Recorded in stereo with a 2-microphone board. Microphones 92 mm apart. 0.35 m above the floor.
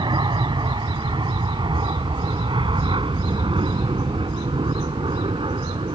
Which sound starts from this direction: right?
An aircraft, at 0.0 s.